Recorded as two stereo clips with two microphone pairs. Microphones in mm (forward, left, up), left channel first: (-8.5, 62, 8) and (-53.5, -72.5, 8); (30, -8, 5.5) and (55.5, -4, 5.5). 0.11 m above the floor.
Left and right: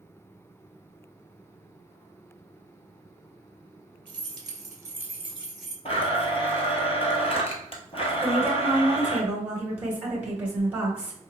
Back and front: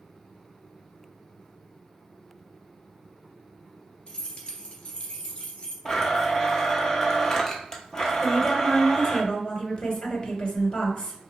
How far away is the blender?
About 0.9 m.